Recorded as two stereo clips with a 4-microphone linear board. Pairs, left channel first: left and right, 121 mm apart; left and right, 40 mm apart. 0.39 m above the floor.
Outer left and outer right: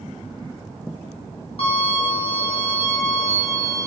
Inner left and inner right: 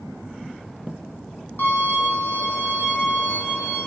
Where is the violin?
55° left (ahead or behind), 3.5 m.